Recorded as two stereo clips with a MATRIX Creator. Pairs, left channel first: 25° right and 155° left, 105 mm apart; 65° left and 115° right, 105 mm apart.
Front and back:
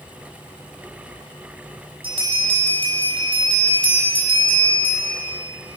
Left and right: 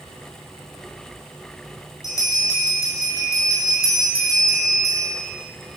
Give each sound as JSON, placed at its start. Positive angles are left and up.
{"t": 2.0, "sound": "a bell", "azimuth_deg": 125, "distance_m": 6.5}